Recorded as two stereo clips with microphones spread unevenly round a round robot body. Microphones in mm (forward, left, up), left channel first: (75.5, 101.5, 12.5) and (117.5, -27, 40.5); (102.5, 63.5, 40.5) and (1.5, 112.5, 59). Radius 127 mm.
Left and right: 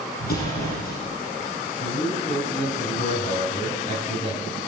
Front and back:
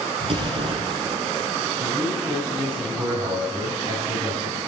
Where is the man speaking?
135° left, 4.5 m.